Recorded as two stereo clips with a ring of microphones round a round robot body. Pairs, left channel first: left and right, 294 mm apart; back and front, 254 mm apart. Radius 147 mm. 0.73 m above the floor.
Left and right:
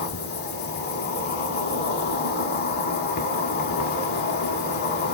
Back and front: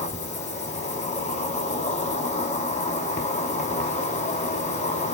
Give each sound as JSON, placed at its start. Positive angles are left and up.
{"t": 0.0, "sound": "an insect", "azimuth_deg": 130, "distance_m": 0.8}